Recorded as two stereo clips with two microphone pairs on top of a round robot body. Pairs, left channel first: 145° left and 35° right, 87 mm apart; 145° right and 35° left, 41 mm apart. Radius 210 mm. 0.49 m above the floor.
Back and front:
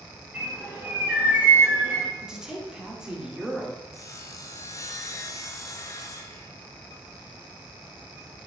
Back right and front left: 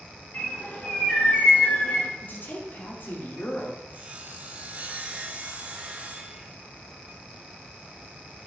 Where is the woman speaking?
115° right, 2.5 m.